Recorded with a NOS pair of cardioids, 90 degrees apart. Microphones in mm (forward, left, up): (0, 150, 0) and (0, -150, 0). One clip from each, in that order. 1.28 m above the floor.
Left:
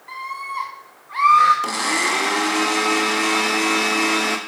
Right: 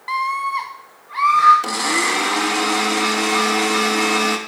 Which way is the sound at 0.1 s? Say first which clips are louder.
Right 8 dB; 65° right.